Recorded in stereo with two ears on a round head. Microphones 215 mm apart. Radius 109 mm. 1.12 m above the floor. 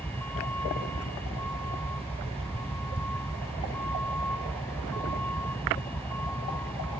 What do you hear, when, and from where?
0.0 s a vehicle: 5° left (ahead or behind)